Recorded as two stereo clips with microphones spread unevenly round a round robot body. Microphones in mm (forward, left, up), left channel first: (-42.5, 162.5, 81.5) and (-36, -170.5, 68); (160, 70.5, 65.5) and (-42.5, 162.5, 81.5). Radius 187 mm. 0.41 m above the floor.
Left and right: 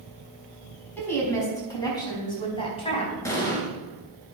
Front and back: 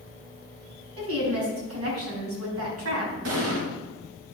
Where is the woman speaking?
175° left, 5 m; by 3.1 s 160° left, 4.5 m.